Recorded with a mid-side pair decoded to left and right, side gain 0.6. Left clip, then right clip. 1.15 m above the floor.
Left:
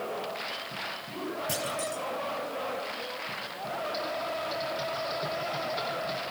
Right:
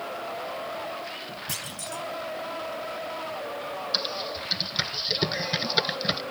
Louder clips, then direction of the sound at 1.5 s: Left 2 dB; 15° right.